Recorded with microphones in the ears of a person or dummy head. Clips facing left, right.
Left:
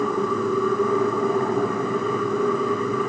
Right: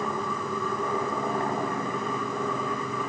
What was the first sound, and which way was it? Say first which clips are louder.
A machine running: left 9 dB; 55° left (ahead or behind).